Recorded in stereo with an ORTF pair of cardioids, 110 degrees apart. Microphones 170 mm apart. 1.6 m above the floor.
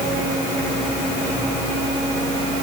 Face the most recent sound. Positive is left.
No sound to turn to.